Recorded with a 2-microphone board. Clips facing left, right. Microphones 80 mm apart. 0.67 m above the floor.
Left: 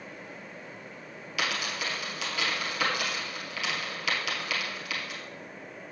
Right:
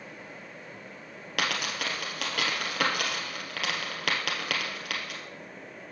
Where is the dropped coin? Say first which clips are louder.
Right 1 dB; 60° right (ahead or behind), 1.8 m.